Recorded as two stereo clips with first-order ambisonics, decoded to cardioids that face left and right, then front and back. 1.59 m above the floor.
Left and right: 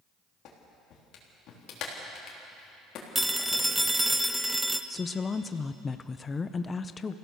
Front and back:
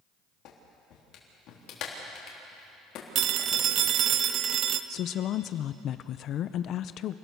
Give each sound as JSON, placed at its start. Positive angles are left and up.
{"t": 0.5, "sound": "a clap", "azimuth_deg": 45, "distance_m": 3.5}
{"t": 3.1, "sound": "a phone ringing", "azimuth_deg": -175, "distance_m": 0.7}
{"t": 4.9, "sound": "a woman speaking", "azimuth_deg": 25, "distance_m": 0.5}